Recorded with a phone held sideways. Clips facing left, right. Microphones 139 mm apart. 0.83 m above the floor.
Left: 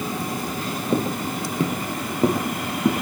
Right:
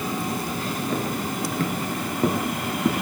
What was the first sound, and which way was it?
Footsteps, 30° left (ahead or behind).